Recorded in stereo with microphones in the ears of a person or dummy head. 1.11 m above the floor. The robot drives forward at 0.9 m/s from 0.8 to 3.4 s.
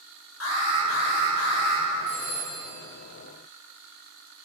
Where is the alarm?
90° left, 4 m; by 1.9 s 80° left, 4 m.